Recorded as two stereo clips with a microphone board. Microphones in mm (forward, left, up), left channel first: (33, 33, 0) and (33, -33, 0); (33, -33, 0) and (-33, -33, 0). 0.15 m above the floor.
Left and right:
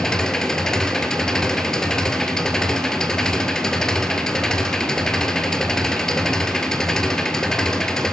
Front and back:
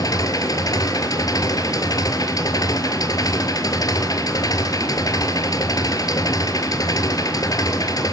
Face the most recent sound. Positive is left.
turn(degrees=10)